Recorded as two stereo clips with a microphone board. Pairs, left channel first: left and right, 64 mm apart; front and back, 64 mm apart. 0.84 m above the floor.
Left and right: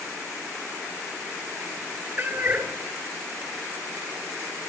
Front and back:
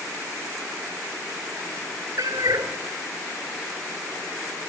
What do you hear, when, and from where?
2.2 s a cat meowing: 150° right, 1.6 m